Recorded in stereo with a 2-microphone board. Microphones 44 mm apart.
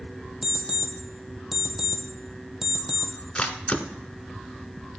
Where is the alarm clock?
10° right (ahead or behind), 1.7 m.